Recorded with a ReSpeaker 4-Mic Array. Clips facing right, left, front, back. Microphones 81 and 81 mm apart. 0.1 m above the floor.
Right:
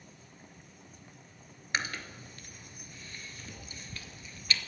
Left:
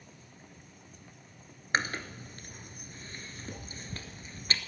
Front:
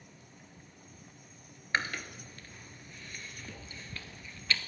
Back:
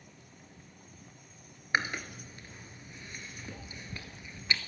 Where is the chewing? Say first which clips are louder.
Left 4 dB, back 2 dB; 115° left, 1.1 m.